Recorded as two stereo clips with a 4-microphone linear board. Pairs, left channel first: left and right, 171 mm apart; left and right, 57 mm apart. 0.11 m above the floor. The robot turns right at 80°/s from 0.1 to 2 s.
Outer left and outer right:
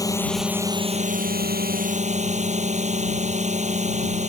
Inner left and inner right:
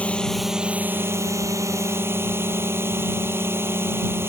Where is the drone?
155° left; by 4.3 s 50° right.